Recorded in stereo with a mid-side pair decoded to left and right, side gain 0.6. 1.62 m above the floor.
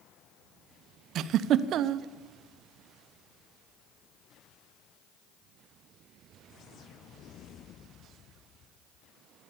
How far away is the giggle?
About 0.5 m.